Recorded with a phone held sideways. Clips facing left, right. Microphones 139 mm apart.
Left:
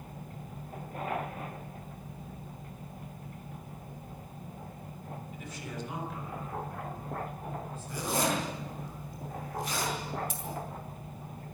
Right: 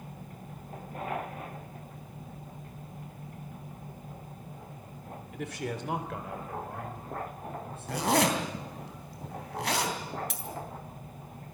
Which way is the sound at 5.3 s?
75° right (ahead or behind).